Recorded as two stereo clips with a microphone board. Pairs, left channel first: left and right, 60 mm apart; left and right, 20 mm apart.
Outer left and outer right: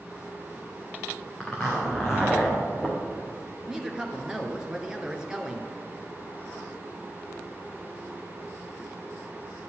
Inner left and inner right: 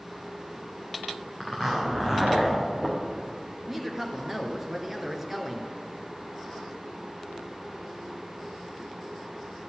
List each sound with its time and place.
1.4 s a zipper: 5° left (ahead or behind), 3.5 m
3.7 s a woman speaking: 10° right (ahead or behind), 1.6 m